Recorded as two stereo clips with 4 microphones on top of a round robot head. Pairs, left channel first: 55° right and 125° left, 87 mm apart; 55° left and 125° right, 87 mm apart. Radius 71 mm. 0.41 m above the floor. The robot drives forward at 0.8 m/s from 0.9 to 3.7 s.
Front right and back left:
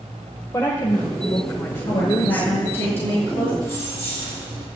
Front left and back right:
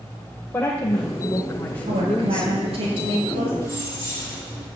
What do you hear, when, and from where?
0.5 s a woman speaking: 5° right, 2 m; by 2.5 s 10° right, 1.1 m
1.9 s a woman speaking: 120° right, 6.5 m; by 3.5 s 130° right, 7.5 m
3.6 s keys jangling: straight behind, 9.5 m